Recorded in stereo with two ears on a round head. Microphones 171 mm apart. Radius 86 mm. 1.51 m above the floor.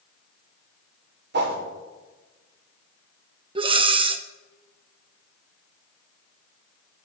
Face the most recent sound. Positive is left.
turn(degrees=-25)  # may be behind; listen again after turning